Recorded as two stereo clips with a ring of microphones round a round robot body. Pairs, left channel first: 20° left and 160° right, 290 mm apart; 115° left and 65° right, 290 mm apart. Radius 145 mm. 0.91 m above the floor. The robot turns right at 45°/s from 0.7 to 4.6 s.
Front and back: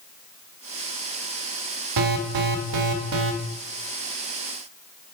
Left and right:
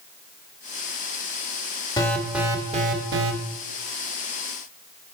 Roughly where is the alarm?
Behind.